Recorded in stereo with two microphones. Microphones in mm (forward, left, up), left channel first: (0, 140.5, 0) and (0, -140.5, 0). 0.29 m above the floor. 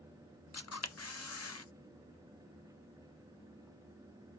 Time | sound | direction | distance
0.5 | a camera shutter | 55° left (ahead or behind) | 0.5 m